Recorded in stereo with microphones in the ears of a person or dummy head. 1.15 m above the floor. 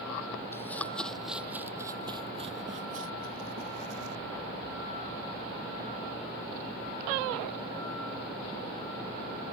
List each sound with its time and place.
0.5 s running footsteps: 20° left (ahead or behind); by 4.2 s 65° right (ahead or behind)